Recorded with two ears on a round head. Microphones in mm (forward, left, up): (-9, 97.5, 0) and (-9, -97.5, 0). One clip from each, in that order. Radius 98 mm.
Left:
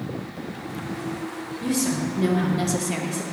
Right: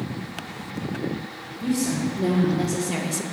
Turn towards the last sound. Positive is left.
turn(degrees=-35)  # may be behind; listen again after turning